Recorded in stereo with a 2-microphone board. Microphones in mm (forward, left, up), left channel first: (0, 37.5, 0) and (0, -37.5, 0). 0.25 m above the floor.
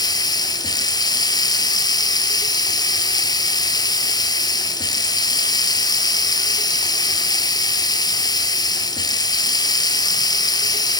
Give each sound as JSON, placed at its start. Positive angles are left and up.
{"t": 0.0, "sound": "running water", "side_deg": 60, "distance_m": 2.0}